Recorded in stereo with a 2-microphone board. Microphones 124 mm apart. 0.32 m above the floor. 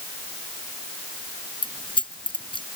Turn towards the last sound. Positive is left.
turn(degrees=45)  # may be behind; listen again after turning